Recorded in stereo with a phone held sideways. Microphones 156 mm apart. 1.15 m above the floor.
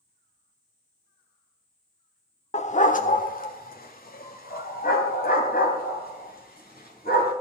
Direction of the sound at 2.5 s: 45° left (ahead or behind).